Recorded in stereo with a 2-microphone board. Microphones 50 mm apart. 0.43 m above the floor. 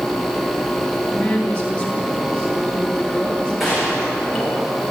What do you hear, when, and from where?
1.1 s a woman speaking: 15° left (ahead or behind), 8.5 m
3.6 s a gunshot: centre (ahead or behind), 7.5 m